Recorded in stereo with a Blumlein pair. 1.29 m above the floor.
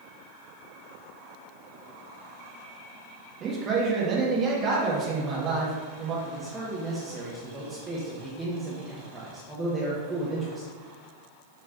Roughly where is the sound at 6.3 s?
Ahead.